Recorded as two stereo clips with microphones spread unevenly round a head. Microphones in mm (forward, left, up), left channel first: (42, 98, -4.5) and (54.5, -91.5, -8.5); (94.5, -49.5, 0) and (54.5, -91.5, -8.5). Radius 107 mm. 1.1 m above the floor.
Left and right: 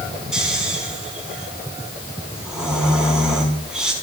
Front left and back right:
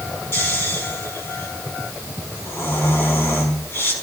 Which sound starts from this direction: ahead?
Snoring, at 0.3 s.